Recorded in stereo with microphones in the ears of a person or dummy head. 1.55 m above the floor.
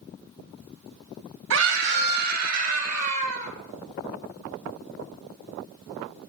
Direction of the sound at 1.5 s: 75° right (ahead or behind).